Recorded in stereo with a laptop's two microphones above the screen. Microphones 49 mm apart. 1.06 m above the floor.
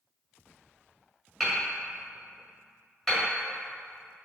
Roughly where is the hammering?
Centre.